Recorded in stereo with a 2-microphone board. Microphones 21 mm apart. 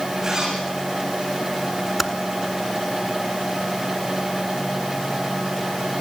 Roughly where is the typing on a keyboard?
Centre.